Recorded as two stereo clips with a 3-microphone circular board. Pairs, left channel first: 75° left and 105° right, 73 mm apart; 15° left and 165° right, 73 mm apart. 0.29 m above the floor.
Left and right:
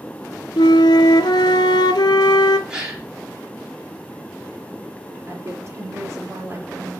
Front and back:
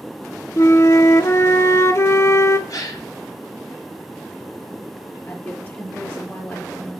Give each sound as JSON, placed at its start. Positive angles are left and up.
{"t": 0.6, "sound": "a flute", "azimuth_deg": 65, "distance_m": 0.7}
{"t": 2.7, "sound": "a gasp", "azimuth_deg": -30, "distance_m": 4.5}
{"t": 5.3, "sound": "a woman speaking", "azimuth_deg": -50, "distance_m": 5.0}